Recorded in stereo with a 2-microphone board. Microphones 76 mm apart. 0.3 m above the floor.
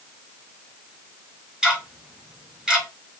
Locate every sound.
1.6 s ticking: 10° right (ahead or behind), 1.3 m